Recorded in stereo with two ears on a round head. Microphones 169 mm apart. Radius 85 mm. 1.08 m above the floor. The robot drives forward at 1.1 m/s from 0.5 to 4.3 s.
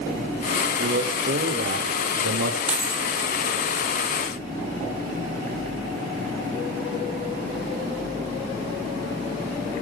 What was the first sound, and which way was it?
A man speaking, 50° right (ahead or behind).